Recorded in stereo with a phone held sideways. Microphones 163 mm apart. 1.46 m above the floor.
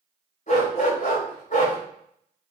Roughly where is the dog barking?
Left.